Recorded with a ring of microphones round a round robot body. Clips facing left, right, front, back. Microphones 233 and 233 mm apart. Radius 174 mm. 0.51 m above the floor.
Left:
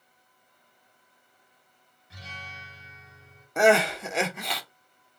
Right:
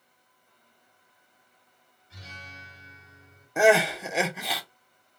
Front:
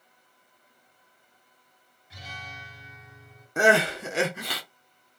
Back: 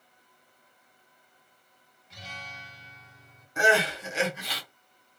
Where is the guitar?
80° left, 2.5 m.